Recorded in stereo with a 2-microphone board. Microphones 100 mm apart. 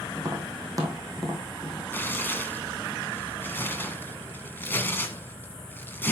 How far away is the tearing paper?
About 1.4 m.